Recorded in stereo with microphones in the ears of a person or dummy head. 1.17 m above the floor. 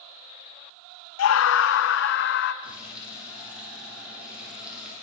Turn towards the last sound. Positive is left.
turn(degrees=-5)  # may be behind; listen again after turning